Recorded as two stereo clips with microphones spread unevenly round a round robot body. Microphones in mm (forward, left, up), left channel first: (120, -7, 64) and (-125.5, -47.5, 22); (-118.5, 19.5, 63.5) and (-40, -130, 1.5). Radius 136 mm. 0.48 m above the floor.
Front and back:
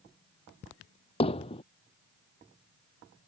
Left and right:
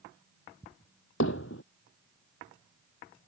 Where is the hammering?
80° left.